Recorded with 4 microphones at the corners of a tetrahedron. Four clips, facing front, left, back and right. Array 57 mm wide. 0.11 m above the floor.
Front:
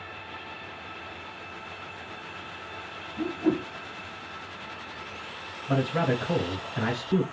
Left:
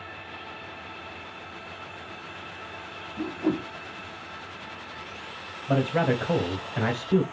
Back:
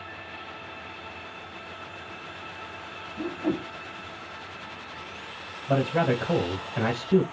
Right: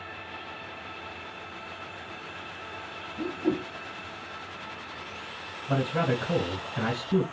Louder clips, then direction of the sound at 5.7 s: Left 3 dB, back 2 dB; 100° left.